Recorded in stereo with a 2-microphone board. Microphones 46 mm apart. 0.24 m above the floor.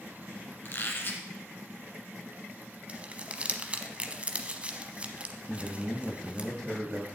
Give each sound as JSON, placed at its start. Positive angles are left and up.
{"t": 0.7, "sound": "a squeak", "side_deg": 50, "distance_m": 1.4}
{"t": 2.9, "sound": "crumpling", "side_deg": -30, "distance_m": 0.8}
{"t": 5.5, "sound": "a man speaking", "side_deg": 15, "distance_m": 1.3}